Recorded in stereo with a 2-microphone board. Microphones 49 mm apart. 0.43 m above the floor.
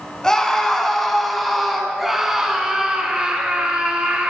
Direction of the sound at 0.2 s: 10° left (ahead or behind).